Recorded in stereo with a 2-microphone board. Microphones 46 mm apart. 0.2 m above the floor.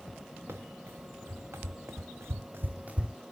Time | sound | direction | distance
0.5 | running footsteps | 70° right (ahead or behind) | 1.6 m